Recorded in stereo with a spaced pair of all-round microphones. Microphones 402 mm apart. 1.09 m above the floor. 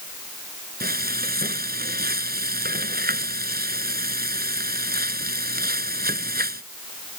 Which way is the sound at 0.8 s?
25° right (ahead or behind).